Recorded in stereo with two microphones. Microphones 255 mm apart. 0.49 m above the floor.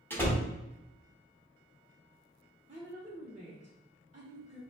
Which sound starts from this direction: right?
A woman speaking, at 2.7 s.